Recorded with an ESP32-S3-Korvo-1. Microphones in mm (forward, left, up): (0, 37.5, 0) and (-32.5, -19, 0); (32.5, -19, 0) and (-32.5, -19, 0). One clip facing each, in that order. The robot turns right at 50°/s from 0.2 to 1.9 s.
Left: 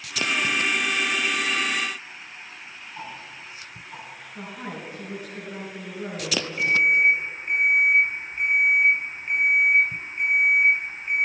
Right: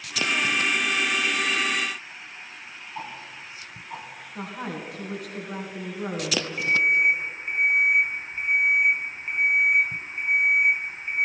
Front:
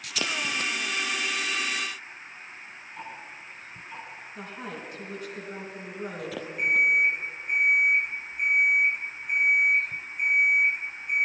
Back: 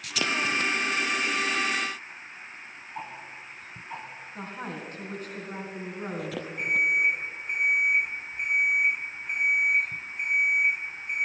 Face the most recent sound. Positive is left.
turn(degrees=160)